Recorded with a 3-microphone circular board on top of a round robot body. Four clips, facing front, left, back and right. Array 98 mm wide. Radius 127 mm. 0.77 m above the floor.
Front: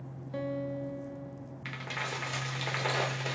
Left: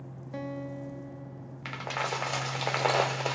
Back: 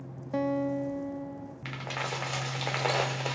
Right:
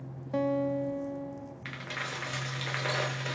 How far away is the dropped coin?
About 0.5 m.